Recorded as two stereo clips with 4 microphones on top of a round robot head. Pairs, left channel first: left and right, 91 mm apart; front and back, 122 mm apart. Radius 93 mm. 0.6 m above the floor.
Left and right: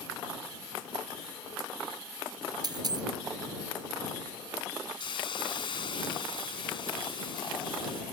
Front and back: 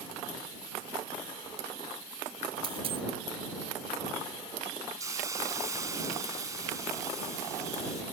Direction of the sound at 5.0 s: 115° left.